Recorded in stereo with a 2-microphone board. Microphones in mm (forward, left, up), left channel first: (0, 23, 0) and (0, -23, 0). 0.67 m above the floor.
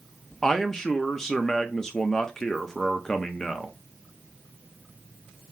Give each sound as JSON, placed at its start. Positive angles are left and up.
{"t": 0.4, "sound": "a man speaking", "side_deg": 10, "distance_m": 0.6}